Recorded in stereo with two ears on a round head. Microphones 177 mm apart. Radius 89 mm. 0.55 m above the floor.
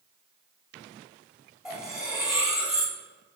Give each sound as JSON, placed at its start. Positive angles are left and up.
{"t": 1.6, "sound": "cutlery clinking", "side_deg": -5, "distance_m": 1.4}